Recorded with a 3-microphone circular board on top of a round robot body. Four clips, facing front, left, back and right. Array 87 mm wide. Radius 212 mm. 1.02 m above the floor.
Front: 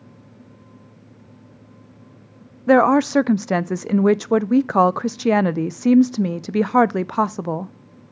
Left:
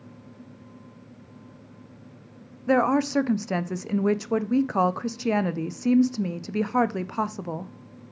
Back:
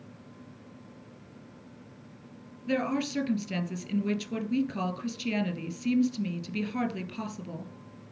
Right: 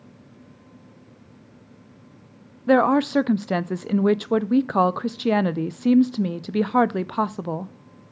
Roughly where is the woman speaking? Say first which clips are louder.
Right 4 dB, front 15 dB; ahead.